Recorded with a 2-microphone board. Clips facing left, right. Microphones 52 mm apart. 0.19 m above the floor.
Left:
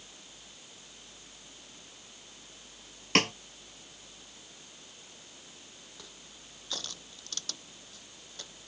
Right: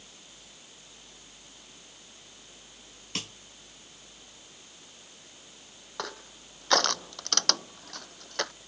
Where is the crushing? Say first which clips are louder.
Right 13 dB; 70° right (ahead or behind).